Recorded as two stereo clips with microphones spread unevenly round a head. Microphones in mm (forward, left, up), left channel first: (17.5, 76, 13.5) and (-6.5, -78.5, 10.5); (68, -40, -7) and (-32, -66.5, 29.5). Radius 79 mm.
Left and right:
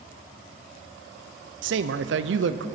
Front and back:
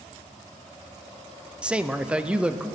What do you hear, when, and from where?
1.6 s a man speaking: 90° right, 0.6 m